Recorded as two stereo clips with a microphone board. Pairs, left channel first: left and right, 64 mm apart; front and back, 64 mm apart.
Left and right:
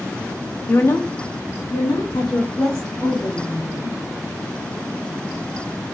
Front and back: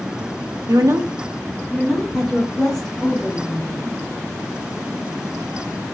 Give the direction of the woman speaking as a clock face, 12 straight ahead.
7 o'clock.